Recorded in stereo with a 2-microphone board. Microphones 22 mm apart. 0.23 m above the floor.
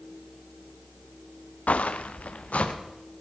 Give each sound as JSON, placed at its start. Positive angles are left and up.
{"t": 1.7, "sound": "footsteps", "side_deg": 80, "distance_m": 1.4}